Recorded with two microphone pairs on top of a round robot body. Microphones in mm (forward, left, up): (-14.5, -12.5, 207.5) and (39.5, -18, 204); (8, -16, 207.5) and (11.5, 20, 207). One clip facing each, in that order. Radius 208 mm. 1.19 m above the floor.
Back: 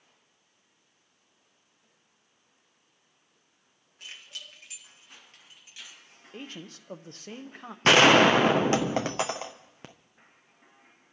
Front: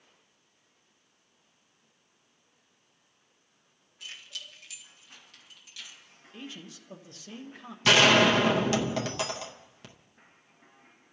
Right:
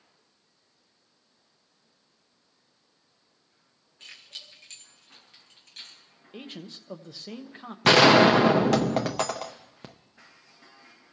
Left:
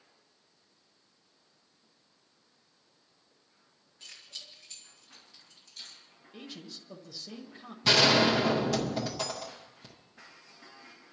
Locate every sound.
4.0 s keys jangling: 140° right, 2 m; by 6.0 s 120° right, 3 m
6.3 s a man speaking: 140° right, 0.9 m
7.8 s a gunshot: 130° right, 0.5 m